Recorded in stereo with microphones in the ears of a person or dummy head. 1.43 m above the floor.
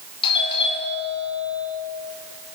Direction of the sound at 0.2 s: 30° left (ahead or behind).